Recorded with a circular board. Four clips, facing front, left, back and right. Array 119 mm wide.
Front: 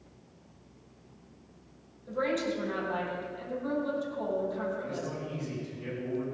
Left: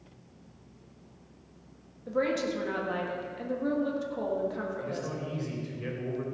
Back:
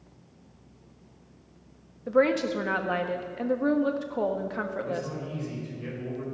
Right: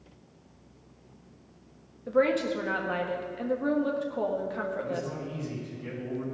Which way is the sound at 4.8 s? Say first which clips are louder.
Right 2 dB, back 3 dB; 100° left.